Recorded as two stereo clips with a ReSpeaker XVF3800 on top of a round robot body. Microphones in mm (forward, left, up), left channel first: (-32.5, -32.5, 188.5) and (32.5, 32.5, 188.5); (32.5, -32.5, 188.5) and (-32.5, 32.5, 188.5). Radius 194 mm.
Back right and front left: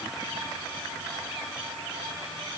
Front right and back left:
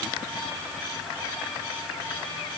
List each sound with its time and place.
Only background noise.